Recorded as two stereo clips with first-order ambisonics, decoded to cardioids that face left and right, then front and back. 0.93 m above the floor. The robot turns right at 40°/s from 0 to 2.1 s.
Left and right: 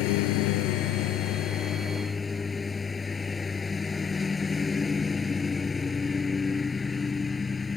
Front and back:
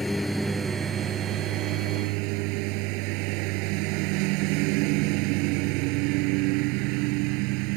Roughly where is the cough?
No cough in this recording.